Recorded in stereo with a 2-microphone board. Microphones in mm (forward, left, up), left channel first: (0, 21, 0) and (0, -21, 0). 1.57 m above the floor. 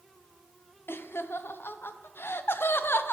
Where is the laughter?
65° left (ahead or behind), 0.5 m.